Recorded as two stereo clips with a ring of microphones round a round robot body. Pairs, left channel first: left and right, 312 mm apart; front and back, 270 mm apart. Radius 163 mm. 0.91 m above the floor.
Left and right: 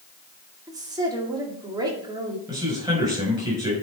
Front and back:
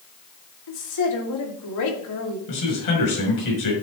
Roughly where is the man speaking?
Ahead.